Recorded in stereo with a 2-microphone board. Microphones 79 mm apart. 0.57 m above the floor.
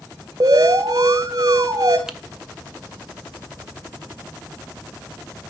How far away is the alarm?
About 1.9 m.